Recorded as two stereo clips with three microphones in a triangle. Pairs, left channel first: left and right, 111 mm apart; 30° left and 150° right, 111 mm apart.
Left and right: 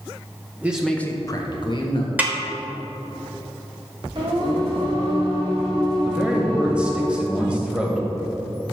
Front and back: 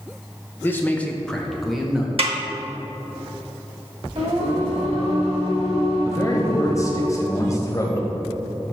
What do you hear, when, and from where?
0.6 s a man speaking: 25° right, 0.7 m; by 2.1 s 125° left, 1.3 m
2.2 s a snare drum: 165° right, 1.0 m
4.2 s singing: 140° right, 2 m
6.0 s a man speaking: 15° right, 1.1 m